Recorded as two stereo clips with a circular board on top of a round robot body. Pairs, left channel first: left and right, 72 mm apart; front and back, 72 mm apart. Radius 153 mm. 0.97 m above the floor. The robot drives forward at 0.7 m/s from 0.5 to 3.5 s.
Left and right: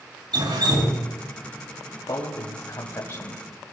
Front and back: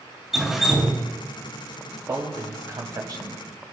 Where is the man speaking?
130° left, 2.5 m; by 3.4 s 145° left, 3 m.